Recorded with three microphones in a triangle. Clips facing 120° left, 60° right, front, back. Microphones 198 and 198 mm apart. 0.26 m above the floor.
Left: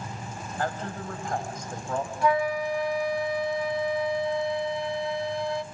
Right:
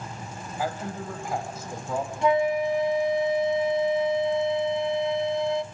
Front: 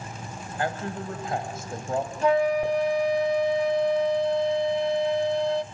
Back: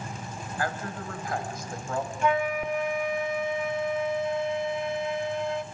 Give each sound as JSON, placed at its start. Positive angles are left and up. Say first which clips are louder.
{"t": 0.6, "sound": "a man speaking", "louder": "right 1 dB, front 3 dB", "azimuth_deg": 15, "distance_m": 1.1}
{"t": 2.2, "sound": "a flute", "louder": "right 3 dB, front 5 dB", "azimuth_deg": -15, "distance_m": 0.6}